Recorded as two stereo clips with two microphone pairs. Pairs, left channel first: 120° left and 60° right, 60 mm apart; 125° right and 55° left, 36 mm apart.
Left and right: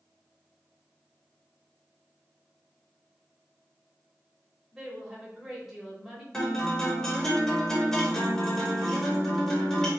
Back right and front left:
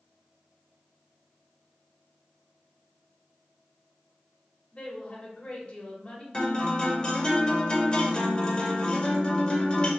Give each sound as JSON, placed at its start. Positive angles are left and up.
{"t": 4.7, "sound": "a woman speaking", "azimuth_deg": -135, "distance_m": 1.0}
{"t": 6.3, "sound": "a guitar", "azimuth_deg": -165, "distance_m": 0.8}